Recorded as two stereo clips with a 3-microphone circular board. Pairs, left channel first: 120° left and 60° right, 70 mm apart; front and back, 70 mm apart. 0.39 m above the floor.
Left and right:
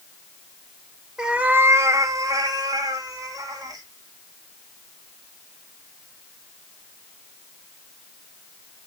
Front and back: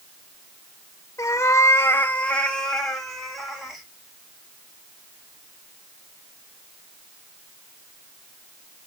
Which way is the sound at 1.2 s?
20° left.